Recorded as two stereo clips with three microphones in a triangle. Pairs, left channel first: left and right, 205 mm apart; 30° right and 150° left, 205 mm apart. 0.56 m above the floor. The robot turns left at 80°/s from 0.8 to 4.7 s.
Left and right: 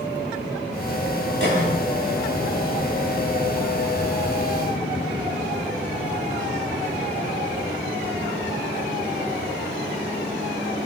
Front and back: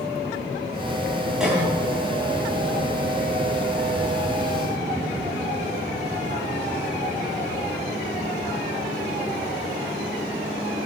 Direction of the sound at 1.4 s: 120° right.